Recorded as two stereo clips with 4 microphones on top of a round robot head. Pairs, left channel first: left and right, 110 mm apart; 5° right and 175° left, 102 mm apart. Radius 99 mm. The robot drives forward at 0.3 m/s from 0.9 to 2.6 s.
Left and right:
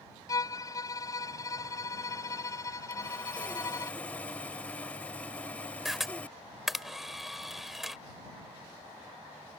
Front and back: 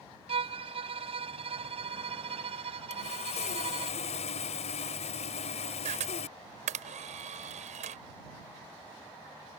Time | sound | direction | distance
0.3 | a violin | 150° left | ?
2.9 | sawing | 10° left | ?
5.8 | a camera shutter | straight behind | ?